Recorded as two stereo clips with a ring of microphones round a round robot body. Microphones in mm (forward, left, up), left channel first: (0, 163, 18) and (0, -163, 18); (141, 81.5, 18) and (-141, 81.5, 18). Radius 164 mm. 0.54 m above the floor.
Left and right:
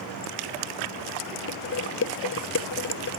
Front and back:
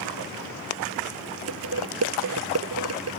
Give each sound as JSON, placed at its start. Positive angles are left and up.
{"t": 1.5, "sound": "dishes clattering", "azimuth_deg": 145}